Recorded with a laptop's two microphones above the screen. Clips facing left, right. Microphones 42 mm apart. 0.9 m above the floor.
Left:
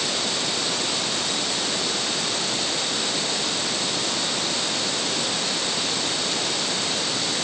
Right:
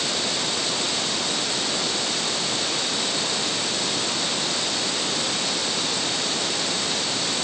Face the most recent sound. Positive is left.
No sound to turn to.